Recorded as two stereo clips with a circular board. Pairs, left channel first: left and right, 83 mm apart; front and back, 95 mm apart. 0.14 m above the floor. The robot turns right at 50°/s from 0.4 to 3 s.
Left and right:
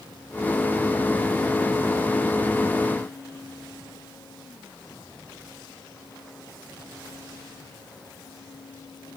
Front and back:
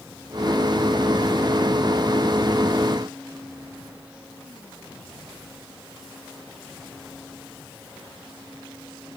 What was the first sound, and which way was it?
Only background noise.